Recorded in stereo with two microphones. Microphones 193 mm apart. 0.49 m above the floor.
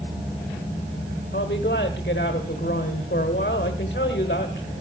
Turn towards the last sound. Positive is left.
turn(degrees=55)  # may be behind; listen again after turning